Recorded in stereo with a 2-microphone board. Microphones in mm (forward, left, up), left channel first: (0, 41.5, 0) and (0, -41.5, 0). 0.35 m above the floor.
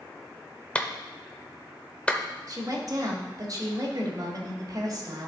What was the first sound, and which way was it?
A clap, 15° left (ahead or behind).